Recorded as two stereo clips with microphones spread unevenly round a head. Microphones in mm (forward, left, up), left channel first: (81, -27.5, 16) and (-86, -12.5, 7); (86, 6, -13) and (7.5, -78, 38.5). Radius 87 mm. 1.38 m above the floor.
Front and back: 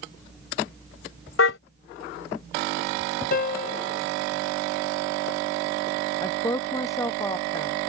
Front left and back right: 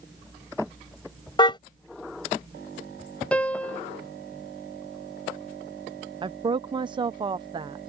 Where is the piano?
40° right.